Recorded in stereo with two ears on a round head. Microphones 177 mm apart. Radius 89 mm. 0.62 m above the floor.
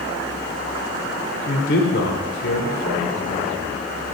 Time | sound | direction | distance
1.5 | a man speaking | 60° left (ahead or behind) | 1.4 m